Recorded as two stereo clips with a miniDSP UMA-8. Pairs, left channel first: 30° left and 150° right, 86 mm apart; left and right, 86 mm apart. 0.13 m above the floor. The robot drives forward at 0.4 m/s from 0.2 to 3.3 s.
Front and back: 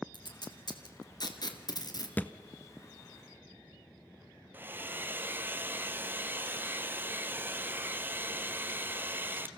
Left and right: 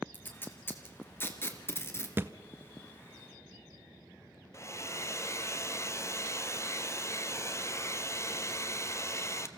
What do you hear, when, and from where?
0.1 s tape being pulled: 30° left, 2.5 m; by 2.1 s 40° left, 2 m
2.2 s a thud: 35° right, 0.8 m; by 2.3 s 40° right, 0.8 m
4.5 s a hair dryer: 145° left, 1.1 m